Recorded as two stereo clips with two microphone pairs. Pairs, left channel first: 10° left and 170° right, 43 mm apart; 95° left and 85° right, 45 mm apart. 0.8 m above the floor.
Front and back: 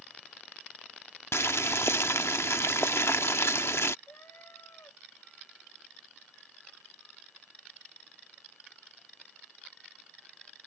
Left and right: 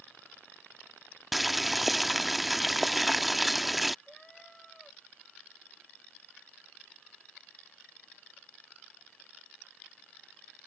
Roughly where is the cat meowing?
Ahead.